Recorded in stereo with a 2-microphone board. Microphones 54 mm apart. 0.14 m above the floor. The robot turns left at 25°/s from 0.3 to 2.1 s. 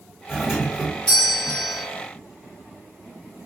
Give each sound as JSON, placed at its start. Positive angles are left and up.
{"t": 0.3, "sound": "a doorbell", "side_deg": -10, "distance_m": 1.6}